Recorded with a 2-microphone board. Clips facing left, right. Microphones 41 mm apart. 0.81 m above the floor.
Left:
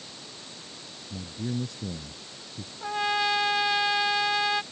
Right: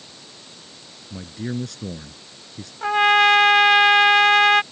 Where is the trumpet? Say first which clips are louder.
Right 11 dB; 65° right (ahead or behind).